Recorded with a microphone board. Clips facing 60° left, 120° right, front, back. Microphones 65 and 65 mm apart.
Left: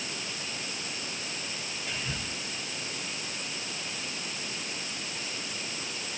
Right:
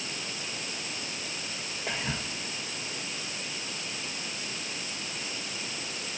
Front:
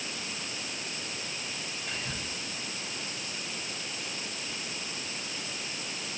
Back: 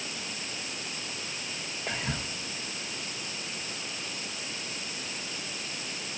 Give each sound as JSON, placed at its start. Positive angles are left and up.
{"t": 1.9, "sound": "whispering", "azimuth_deg": -170, "distance_m": 1.1}